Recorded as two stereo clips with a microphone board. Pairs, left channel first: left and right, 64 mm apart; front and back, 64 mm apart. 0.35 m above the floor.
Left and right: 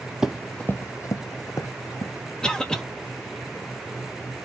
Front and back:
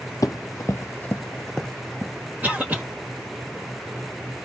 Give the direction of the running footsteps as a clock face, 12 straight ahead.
12 o'clock.